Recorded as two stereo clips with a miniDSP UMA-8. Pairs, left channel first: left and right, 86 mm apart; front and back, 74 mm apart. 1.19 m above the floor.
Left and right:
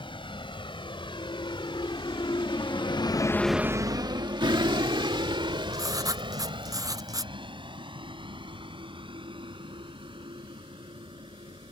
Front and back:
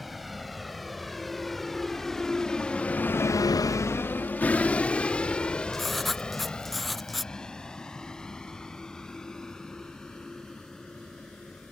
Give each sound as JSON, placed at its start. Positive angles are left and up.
{"t": 0.0, "sound": "a vehicle", "azimuth_deg": 90}
{"t": 5.7, "sound": "writing", "azimuth_deg": -85}